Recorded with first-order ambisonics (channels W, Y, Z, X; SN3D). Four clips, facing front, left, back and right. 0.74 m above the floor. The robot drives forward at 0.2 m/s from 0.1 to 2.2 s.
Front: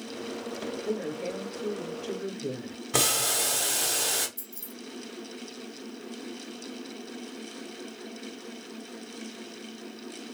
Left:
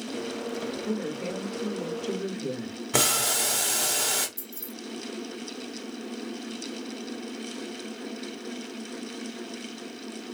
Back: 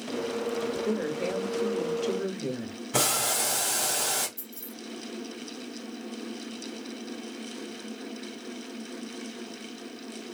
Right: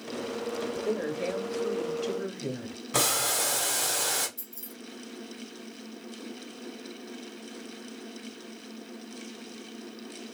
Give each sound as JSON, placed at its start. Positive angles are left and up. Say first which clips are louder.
{"t": 0.8, "sound": "a woman speaking", "louder": "right 3 dB, back 3 dB", "azimuth_deg": -155, "distance_m": 1.1}
{"t": 2.9, "sound": "boiling", "louder": "left 2 dB, front 1 dB", "azimuth_deg": 75, "distance_m": 1.8}
{"t": 4.4, "sound": "keys jangling", "louder": "left 5 dB, back 2 dB", "azimuth_deg": 85, "distance_m": 1.8}